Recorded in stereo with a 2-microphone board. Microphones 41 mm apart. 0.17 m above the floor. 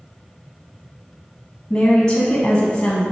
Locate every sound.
1.7 s a woman speaking: 20° left (ahead or behind), 1.1 m